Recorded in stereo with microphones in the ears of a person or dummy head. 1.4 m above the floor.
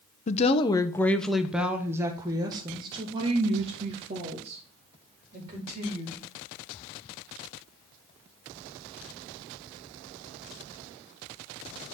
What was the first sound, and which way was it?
A woman speaking, 40° left (ahead or behind).